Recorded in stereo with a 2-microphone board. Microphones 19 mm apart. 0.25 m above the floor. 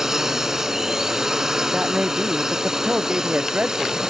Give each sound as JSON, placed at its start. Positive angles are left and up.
{"t": 0.0, "sound": "a drone", "side_deg": -25}
{"t": 1.7, "sound": "a man speaking", "side_deg": -85}